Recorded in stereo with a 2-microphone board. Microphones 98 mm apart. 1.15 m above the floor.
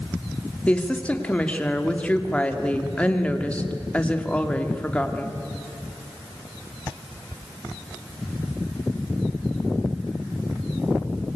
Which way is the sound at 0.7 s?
15° left (ahead or behind).